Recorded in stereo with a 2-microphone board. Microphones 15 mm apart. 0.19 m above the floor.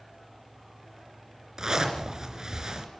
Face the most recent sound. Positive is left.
turn(degrees=-45)  # may be behind; listen again after turning